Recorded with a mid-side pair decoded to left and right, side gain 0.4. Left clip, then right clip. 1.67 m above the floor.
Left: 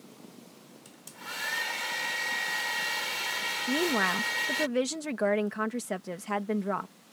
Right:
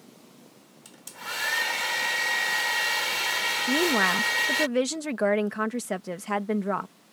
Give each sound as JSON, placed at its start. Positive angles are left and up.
{"t": 0.8, "sound": "a hair dryer", "azimuth_deg": -45}
{"t": 3.7, "sound": "a woman speaking", "azimuth_deg": -30}